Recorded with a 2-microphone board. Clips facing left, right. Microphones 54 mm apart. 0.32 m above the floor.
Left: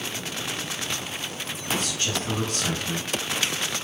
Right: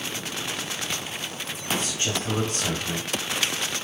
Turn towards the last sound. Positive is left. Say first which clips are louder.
# even
turn(degrees=-20)  # may be behind; listen again after turning